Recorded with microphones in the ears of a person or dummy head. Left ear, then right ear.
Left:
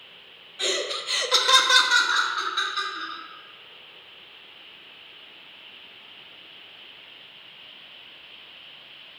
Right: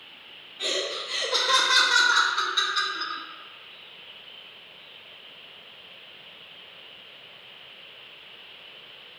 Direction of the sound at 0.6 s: 45° left (ahead or behind).